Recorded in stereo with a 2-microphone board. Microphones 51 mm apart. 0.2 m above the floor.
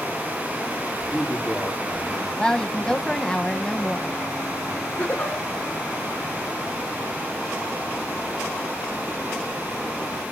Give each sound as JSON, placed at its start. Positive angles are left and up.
{"t": 1.1, "sound": "a man speaking", "side_deg": -10, "distance_m": 5.0}
{"t": 2.4, "sound": "a woman speaking", "side_deg": 15, "distance_m": 1.0}
{"t": 5.0, "sound": "a giggle", "side_deg": 25, "distance_m": 7.0}